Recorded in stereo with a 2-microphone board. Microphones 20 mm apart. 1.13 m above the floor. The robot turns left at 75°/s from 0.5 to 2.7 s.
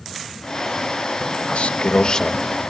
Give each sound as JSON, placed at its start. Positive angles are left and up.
{"t": 1.5, "sound": "a man speaking", "azimuth_deg": 90, "distance_m": 1.0}